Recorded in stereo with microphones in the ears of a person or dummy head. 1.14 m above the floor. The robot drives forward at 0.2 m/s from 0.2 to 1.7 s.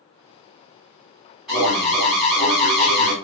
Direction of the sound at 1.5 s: Centre (ahead or behind).